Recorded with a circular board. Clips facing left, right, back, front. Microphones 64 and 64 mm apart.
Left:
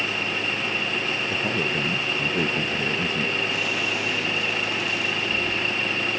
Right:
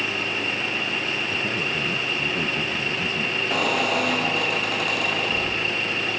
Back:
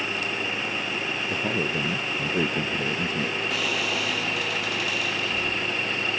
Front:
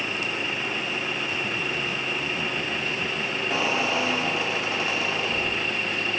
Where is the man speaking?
160° left.